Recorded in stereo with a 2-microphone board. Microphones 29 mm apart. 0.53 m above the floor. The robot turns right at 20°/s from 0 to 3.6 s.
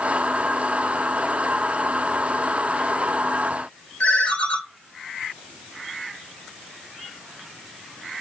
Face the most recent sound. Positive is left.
turn(degrees=65)  # may be behind; listen again after turning